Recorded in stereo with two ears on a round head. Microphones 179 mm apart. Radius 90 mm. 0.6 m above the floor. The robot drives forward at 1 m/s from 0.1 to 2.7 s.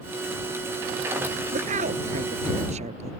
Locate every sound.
1.5 s a woman speaking: 40° right (ahead or behind); by 3.1 s 35° right (ahead or behind)